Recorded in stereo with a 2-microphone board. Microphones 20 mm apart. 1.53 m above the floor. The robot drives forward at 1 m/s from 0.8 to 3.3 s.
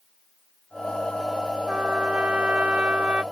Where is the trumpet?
70° right (ahead or behind); by 3.2 s 75° right (ahead or behind).